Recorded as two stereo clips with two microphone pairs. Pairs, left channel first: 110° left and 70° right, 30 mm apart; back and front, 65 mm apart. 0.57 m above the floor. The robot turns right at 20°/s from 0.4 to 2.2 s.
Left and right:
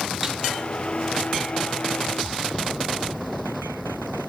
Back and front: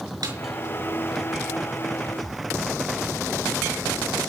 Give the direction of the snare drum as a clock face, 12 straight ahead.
12 o'clock.